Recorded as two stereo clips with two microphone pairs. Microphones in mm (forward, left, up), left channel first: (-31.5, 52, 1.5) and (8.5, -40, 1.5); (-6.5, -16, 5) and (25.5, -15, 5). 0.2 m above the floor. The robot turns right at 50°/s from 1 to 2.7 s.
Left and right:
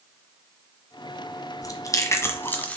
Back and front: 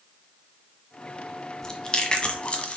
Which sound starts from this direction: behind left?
Chewing, at 1.6 s.